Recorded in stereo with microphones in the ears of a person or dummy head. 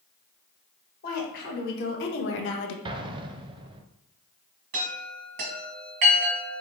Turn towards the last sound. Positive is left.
turn(degrees=-35)  # may be behind; listen again after turning